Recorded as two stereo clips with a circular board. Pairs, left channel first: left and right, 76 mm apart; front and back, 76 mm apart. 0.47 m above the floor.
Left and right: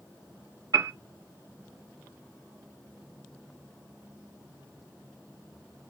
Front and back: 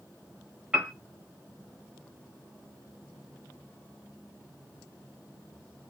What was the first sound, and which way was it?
A piano, 105° right.